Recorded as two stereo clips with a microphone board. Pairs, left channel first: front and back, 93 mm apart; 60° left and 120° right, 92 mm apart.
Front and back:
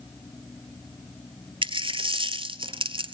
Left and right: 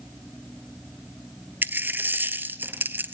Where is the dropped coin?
175° left, 0.8 m.